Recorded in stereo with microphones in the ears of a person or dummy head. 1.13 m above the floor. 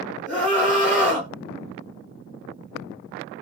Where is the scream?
10° left (ahead or behind), 1.5 m.